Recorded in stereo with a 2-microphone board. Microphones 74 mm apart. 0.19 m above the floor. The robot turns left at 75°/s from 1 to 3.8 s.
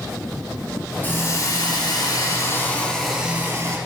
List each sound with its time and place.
1.0 s a hiss: 155° left, 4.5 m; by 3.8 s 50° right, 4.5 m